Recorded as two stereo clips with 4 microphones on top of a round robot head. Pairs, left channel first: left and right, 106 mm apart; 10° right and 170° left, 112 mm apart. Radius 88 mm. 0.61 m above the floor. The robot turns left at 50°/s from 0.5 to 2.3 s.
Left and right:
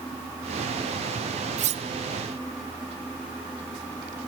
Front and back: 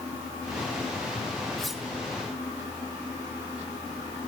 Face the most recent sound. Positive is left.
turn(degrees=-130)